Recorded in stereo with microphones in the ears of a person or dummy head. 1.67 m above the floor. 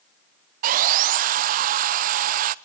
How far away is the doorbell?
I don't hear a doorbell.